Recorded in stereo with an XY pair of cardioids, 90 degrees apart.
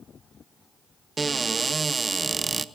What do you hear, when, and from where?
1.2 s a cupboard door: 30° right, 0.7 m